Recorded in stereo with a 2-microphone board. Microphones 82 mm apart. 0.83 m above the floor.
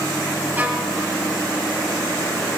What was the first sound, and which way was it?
A violin, 25° right (ahead or behind).